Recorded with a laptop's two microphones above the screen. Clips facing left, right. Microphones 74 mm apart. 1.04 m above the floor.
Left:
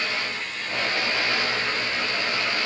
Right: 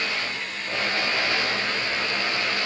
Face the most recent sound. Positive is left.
No sound to turn to.